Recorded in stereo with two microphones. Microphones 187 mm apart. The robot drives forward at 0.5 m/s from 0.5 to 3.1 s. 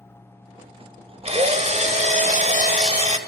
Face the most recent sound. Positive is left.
turn(degrees=-35)  # may be behind; listen again after turning